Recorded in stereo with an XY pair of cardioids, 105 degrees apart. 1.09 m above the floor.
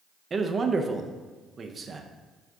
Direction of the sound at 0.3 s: 35° right.